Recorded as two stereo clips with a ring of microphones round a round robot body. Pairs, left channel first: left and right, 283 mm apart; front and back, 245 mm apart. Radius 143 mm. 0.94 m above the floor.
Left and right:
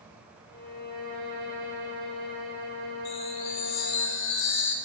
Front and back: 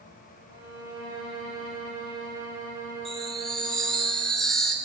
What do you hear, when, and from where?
0.5 s a violin: 30° left, 5.5 m
3.0 s a chime: 90° left, 1.3 m